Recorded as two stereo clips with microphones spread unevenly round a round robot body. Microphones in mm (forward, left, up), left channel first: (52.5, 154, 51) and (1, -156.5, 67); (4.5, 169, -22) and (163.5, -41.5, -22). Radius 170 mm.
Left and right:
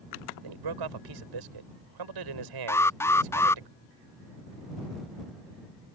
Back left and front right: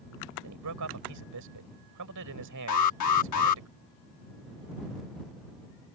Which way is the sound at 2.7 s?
160° left.